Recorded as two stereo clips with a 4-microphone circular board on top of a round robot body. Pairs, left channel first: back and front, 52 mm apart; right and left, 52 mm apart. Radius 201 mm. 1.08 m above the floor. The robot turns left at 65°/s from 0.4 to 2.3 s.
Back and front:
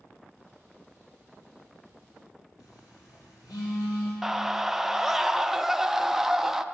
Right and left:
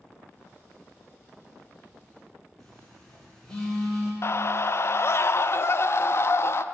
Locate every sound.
2.6 s a phone buzzing: 170° right, 2.5 m
4.2 s a scream: 85° right, 0.5 m